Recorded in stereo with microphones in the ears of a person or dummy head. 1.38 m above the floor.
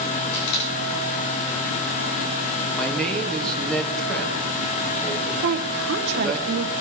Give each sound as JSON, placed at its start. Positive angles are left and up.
{"t": 0.3, "sound": "a camera shutter", "side_deg": 55, "distance_m": 9.5}
{"t": 2.7, "sound": "a man speaking", "side_deg": 0, "distance_m": 2.0}
{"t": 5.4, "sound": "a woman speaking", "side_deg": -65, "distance_m": 0.9}